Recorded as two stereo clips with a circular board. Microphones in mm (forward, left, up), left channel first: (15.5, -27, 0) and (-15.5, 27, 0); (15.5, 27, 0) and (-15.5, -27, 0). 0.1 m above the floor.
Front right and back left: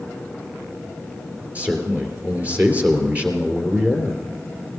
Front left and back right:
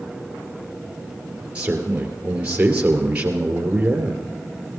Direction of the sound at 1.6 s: 175° left.